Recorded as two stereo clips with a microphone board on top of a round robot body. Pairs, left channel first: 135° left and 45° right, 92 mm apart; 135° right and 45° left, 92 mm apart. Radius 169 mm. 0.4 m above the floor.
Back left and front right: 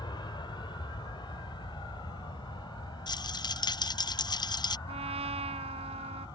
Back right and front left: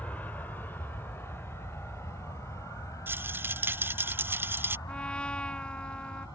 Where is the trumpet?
55° right.